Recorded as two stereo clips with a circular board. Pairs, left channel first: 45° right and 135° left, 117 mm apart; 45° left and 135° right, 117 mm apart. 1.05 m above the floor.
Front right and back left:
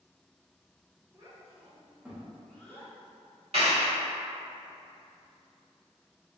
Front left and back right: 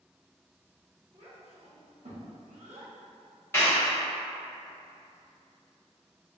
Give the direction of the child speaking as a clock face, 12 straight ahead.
6 o'clock.